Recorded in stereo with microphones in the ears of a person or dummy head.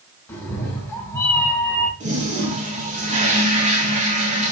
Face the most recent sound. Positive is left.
turn(degrees=-35)  # may be behind; listen again after turning